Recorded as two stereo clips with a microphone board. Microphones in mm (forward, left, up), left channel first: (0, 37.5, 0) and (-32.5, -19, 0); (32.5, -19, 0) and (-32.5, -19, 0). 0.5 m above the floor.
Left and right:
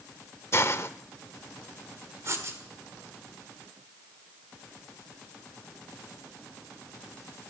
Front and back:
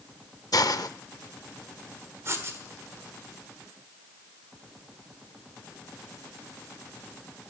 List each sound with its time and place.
0.5 s a hiss: 15° left, 0.5 m
2.2 s writing: 145° right, 1.6 m